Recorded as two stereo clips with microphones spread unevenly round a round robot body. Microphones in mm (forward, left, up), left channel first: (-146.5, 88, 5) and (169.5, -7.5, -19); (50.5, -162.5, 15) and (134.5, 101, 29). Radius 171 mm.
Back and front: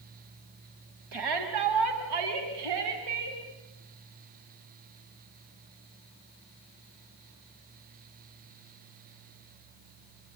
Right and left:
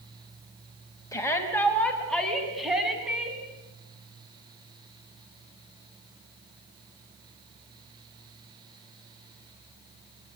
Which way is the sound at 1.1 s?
30° right.